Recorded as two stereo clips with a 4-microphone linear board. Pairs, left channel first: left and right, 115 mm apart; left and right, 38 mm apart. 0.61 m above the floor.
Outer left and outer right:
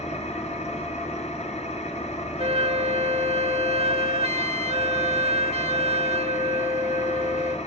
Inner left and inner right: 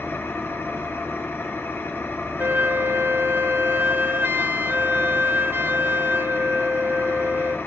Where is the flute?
65° right (ahead or behind), 0.8 m.